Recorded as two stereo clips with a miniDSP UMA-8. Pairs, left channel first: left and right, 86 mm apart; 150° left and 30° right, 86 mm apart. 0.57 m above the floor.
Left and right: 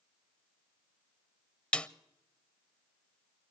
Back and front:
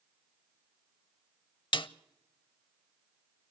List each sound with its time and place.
1.7 s a snare drum: 165° left, 0.5 m